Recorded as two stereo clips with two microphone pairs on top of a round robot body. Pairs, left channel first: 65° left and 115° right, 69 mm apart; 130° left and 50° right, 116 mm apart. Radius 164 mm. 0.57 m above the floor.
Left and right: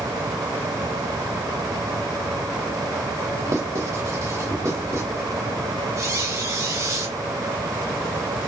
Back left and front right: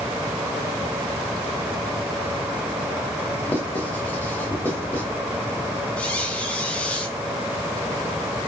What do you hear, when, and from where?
3.5 s writing: 155° right, 3 m
6.0 s a squeak: 145° right, 4 m